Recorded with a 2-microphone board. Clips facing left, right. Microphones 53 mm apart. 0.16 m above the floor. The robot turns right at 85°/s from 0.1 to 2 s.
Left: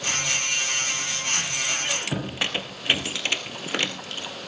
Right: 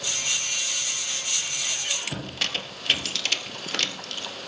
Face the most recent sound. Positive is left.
turn(degrees=15)  # may be behind; listen again after turning